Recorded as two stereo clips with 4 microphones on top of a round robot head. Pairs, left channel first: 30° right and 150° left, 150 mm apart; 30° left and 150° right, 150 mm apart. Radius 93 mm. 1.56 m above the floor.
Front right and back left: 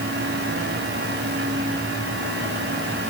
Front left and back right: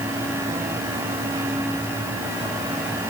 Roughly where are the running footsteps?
No running footsteps in this recording.